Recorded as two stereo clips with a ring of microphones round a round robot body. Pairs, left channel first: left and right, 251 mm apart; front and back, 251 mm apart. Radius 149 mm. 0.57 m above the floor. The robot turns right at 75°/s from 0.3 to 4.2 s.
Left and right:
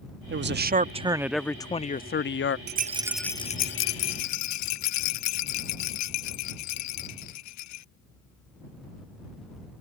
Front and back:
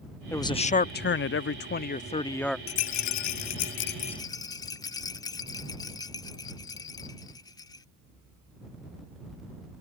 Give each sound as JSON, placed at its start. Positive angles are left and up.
{"t": 0.3, "sound": "a man speaking", "azimuth_deg": -80}
{"t": 2.7, "sound": "a rattle", "azimuth_deg": -40}